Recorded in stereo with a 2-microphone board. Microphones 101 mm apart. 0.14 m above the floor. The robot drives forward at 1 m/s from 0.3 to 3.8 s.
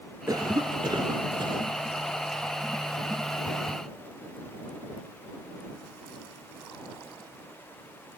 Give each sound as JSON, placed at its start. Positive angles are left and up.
{"t": 0.3, "sound": "a cough", "side_deg": -40, "distance_m": 2.0}